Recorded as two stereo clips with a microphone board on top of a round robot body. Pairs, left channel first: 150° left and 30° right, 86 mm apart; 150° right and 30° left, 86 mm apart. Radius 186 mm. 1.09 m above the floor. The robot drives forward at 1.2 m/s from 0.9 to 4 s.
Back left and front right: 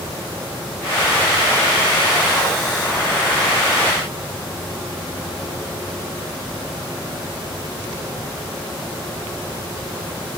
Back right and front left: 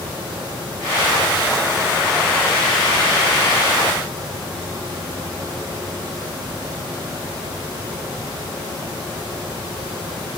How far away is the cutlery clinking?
I don't hear cutlery clinking.